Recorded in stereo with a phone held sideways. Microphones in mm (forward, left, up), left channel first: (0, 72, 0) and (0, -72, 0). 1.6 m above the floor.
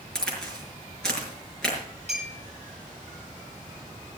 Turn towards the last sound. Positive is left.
turn(degrees=45)  # may be behind; listen again after turning